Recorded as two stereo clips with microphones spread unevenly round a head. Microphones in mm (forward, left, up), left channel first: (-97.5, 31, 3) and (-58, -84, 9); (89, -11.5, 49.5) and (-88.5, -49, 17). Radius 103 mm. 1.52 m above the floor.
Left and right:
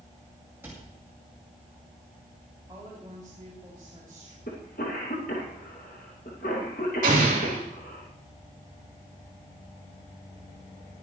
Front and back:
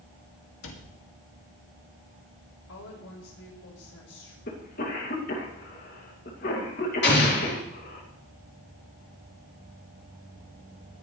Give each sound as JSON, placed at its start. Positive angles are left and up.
{"t": 0.6, "sound": "a cupboard door", "azimuth_deg": 10, "distance_m": 2.0}
{"t": 2.7, "sound": "a woman speaking", "azimuth_deg": 0, "distance_m": 6.0}
{"t": 4.5, "sound": "a cough", "azimuth_deg": 60, "distance_m": 2.5}
{"t": 7.0, "sound": "an explosion", "azimuth_deg": -20, "distance_m": 3.5}